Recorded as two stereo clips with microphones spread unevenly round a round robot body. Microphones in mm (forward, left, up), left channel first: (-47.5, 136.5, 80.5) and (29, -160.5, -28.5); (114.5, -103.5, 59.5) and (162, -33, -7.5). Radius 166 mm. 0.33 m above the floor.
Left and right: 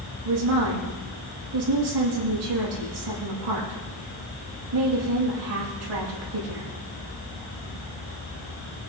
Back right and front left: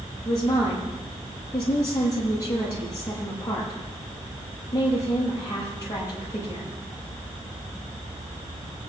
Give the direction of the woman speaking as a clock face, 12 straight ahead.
3 o'clock.